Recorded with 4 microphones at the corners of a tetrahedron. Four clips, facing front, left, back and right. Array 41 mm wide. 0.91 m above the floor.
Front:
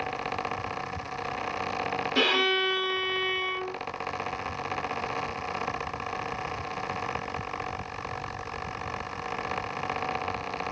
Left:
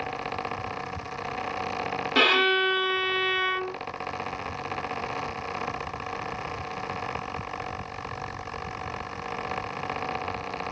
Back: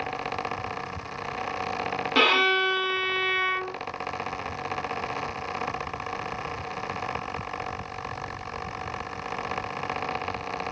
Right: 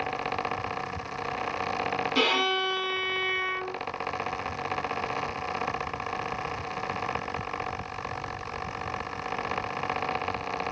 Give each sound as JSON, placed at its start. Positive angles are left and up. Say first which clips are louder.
{"t": 2.1, "sound": "a violin", "louder": "left 5 dB, back 4 dB", "azimuth_deg": 150, "distance_m": 1.4}